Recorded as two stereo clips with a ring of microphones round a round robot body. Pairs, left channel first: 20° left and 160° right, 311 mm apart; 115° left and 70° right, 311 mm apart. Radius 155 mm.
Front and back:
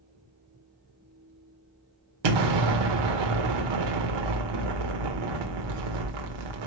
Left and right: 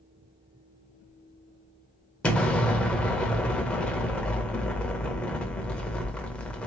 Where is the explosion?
160° right, 0.9 m.